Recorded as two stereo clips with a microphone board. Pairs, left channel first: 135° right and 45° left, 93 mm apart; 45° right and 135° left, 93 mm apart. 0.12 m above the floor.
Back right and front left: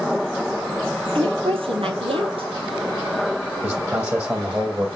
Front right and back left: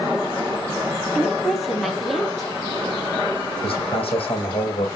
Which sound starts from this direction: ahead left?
A woman speaking, at 1.1 s.